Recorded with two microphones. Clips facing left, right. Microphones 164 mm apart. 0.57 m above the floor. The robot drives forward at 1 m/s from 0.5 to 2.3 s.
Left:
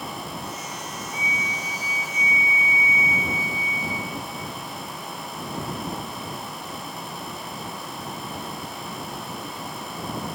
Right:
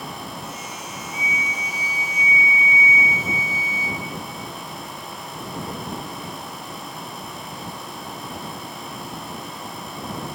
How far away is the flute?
About 2.5 m.